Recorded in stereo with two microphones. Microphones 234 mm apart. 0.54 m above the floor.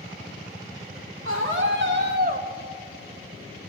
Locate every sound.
1.2 s a scream: 60° right (ahead or behind), 1.3 m; by 2.5 s 35° right (ahead or behind), 0.7 m